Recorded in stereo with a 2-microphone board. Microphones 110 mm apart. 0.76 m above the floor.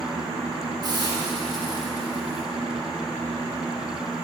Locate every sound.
0.8 s a hiss: 40° right (ahead or behind), 1.1 m